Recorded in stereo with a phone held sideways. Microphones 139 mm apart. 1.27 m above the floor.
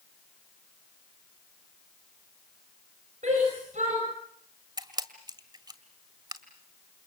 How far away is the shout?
About 8.5 m.